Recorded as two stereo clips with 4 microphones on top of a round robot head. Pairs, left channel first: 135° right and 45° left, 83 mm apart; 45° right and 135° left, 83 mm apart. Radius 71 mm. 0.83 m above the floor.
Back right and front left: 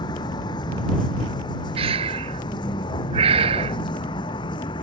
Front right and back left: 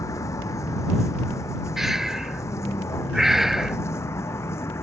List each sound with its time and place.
0.0 s a vehicle: 95° right; by 4.8 s 105° right
1.8 s breathing: 50° left